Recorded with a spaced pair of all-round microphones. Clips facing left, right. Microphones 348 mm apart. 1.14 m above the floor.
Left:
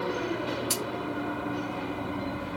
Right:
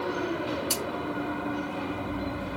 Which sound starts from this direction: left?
A splash, at 0.7 s.